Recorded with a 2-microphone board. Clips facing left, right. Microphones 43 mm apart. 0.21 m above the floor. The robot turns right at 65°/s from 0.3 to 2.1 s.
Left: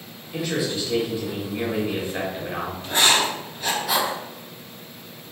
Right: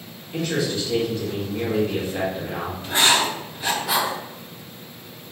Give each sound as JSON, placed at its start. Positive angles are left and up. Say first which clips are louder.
{"t": 0.3, "sound": "a man speaking", "louder": "right 1 dB", "side_deg": -5, "distance_m": 1.0}
{"t": 2.8, "sound": "writing", "louder": "right 1 dB", "side_deg": -20, "distance_m": 1.6}